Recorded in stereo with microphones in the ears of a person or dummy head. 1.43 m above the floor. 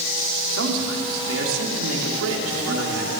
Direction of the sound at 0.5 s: 80° right.